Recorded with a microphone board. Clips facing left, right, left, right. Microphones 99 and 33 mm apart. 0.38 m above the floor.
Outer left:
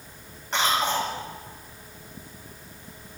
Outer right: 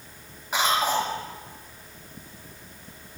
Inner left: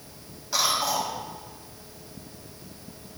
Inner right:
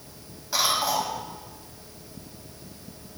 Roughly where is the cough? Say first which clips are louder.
Outer right 1 dB, inner right 1 dB; centre.